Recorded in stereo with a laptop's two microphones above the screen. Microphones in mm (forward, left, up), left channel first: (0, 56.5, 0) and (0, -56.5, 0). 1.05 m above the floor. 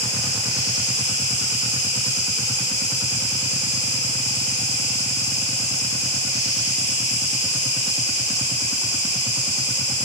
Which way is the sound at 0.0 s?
10° right (ahead or behind).